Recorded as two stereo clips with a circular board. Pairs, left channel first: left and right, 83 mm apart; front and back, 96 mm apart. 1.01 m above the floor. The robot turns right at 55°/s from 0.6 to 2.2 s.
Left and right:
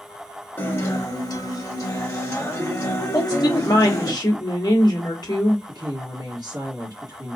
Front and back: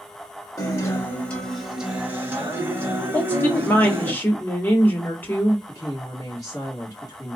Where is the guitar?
35° left, 1.0 m; by 4.1 s 125° left, 1.0 m.